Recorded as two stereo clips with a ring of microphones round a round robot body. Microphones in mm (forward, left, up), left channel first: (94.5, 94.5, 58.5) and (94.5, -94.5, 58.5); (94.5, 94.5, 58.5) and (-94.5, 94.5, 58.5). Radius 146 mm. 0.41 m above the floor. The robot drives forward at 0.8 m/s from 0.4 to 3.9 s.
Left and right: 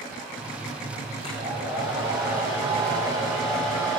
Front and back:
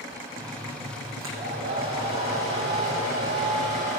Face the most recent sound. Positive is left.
turn(degrees=-165)